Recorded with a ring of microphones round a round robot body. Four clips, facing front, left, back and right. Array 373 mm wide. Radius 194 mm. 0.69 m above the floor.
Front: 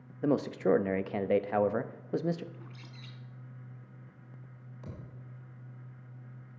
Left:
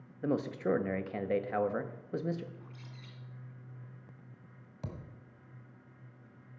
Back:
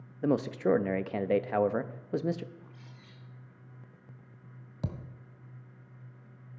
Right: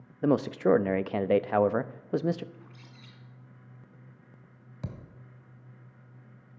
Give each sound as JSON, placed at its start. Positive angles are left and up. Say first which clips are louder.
{"t": 0.2, "sound": "a man speaking", "louder": "right 8 dB, even", "azimuth_deg": -95, "distance_m": 0.6}
{"t": 2.5, "sound": "a bird", "louder": "even, front 2 dB", "azimuth_deg": -5, "distance_m": 2.0}
{"t": 4.8, "sound": "a thud", "louder": "right 3 dB, back 8 dB", "azimuth_deg": -165, "distance_m": 1.4}